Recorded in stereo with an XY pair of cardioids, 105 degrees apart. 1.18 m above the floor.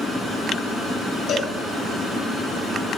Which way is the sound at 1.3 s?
65° left.